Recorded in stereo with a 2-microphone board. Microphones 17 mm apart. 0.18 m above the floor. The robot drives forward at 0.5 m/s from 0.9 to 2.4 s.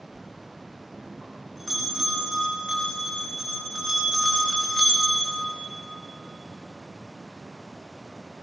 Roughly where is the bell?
Centre.